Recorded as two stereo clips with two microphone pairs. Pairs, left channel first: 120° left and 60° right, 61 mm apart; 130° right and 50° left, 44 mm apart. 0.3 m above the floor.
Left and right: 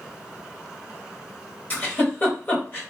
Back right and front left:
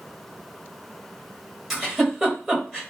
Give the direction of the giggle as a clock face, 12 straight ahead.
8 o'clock.